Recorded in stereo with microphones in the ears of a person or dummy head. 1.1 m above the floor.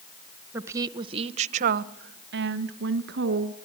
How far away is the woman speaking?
About 1.1 m.